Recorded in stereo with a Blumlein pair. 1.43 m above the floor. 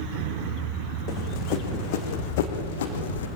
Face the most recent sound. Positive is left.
turn(degrees=65)